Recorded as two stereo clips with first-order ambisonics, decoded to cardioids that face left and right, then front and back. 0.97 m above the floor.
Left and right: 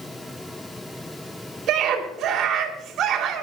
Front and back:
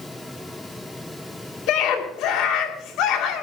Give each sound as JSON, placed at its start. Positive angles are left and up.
{"t": 1.7, "sound": "a scream", "azimuth_deg": -35, "distance_m": 2.5}